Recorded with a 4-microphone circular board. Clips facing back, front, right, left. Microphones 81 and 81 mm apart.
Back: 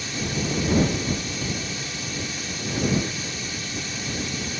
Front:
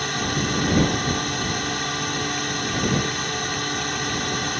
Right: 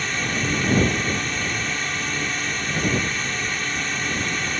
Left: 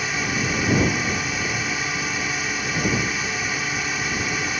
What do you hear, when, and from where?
0.0 s a drone: 10° left